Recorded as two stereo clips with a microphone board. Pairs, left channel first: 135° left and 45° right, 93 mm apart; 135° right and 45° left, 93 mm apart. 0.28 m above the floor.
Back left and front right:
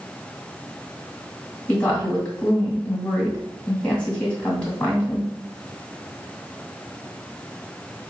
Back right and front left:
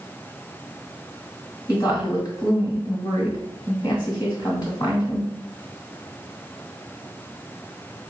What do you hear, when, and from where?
1.7 s a woman speaking: 155° right, 2 m